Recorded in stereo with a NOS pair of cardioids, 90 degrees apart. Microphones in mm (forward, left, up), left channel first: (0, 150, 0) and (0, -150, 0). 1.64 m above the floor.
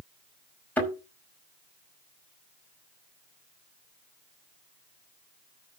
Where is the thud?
5° left, 5 m.